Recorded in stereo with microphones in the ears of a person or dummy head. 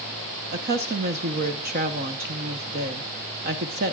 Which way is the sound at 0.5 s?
45° right (ahead or behind).